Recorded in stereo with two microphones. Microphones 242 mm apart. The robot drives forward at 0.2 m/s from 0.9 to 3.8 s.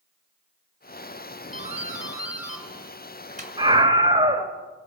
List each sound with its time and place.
1.5 s a doorbell: 30° right (ahead or behind), 1.9 m
3.6 s a scream: 20° right (ahead or behind), 1.3 m